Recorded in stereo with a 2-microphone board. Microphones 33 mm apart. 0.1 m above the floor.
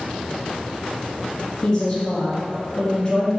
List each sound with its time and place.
1.6 s a woman speaking: 25° left (ahead or behind), 1.3 m